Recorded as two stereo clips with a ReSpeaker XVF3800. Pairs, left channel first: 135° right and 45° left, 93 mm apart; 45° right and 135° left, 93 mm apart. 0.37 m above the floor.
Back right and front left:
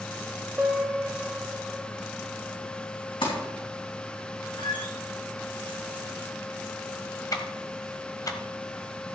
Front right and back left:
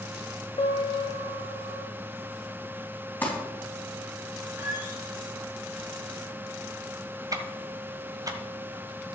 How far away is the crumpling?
About 3 m.